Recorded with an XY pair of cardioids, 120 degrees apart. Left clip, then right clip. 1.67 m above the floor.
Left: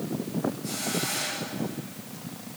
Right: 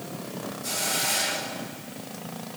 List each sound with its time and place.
0.6 s a hiss: 60° right, 3.5 m